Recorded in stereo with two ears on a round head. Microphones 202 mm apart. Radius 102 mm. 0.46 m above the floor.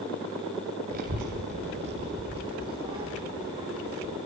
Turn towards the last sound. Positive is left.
turn(degrees=-15)  # may be behind; listen again after turning